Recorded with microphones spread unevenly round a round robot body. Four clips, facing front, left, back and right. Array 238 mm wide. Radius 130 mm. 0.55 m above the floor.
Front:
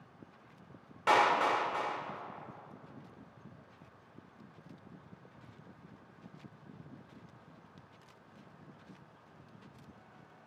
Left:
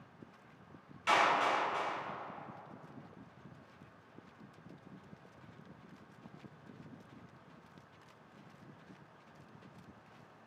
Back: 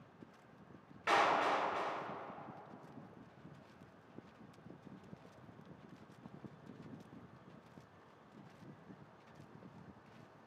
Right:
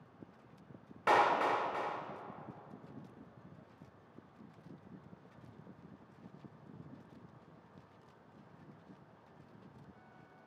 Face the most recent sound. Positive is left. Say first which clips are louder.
# right 1 dB, front 5 dB
turn(degrees=-60)